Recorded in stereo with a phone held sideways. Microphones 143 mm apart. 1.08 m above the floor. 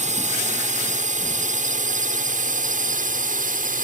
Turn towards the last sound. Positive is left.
turn(degrees=-70)  # may be behind; listen again after turning